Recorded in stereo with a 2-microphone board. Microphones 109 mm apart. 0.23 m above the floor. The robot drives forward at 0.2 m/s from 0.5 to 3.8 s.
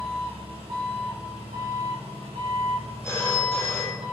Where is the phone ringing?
20° left (ahead or behind), 0.5 m.